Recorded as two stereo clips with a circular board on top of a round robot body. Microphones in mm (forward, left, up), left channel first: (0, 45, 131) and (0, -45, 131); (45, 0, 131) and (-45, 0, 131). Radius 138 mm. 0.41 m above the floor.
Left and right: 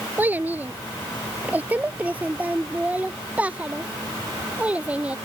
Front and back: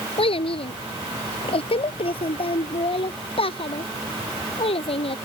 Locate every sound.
0.2 s a child speaking: 20° right; by 5.2 s 15° right